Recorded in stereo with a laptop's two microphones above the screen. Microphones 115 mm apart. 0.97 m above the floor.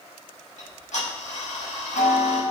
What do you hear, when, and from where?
0.6 s ticking: 85° left, 5.5 m